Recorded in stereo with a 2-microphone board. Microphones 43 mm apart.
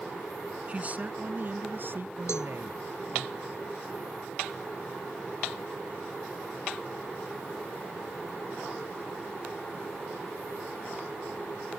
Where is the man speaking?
30° right (ahead or behind); by 3.3 s 60° right (ahead or behind).